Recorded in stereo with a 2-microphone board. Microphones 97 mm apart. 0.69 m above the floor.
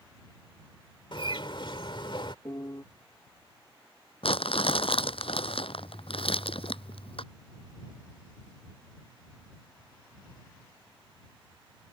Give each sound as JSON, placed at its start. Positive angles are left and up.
{"t": 1.1, "sound": "a bird", "side_deg": 60}
{"t": 2.5, "sound": "a piano", "side_deg": 45}
{"t": 4.2, "sound": "crumpling", "side_deg": 75}